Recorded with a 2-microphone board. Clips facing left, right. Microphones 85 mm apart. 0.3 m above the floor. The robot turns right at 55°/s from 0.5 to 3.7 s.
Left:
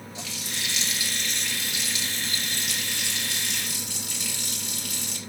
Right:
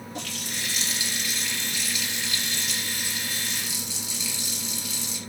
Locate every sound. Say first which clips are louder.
0.1 s a running tap: right 1 dB; 55° right, 3.5 m; by 5.2 s 120° left, 3.5 m